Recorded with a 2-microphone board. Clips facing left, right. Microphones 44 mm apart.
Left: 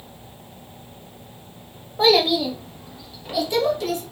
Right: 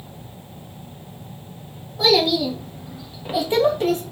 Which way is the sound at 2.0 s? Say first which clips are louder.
Even; 35° left (ahead or behind).